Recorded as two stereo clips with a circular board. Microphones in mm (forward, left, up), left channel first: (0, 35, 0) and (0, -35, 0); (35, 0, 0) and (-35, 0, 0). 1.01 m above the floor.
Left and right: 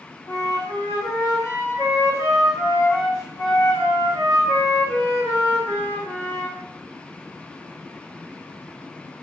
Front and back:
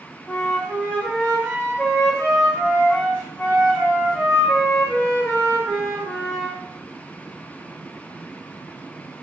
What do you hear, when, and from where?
0.3 s a flute: 75° left, 1.3 m